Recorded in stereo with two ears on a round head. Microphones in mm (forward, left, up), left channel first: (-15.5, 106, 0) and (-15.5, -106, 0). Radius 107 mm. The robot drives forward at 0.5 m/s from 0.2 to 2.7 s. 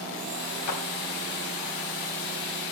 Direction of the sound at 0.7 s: 90° left.